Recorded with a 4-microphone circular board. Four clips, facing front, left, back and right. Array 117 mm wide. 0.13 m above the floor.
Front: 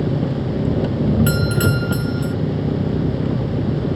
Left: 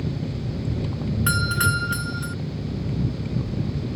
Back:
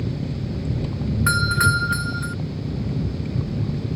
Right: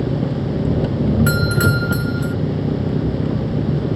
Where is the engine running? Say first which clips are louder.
Right 9 dB, front 8 dB; 45° right.